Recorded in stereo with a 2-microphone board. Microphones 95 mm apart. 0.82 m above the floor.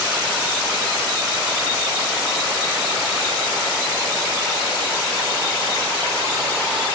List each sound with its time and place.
Only background noise.